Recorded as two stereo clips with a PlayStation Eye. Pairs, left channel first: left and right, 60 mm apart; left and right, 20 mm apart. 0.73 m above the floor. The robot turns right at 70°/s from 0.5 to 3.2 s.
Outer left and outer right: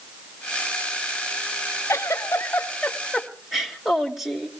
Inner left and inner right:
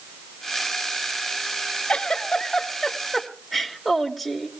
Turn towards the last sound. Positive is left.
turn(degrees=-175)